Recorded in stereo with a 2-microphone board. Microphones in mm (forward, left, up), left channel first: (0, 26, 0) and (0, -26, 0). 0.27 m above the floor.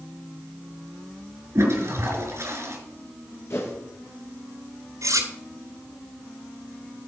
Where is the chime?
I don't hear a chime.